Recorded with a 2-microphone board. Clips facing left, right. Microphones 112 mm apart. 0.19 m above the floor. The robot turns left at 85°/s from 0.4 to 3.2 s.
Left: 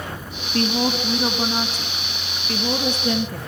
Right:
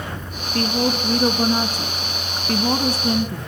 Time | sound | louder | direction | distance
0.5 | a woman speaking | even | 80° left | 1.5 m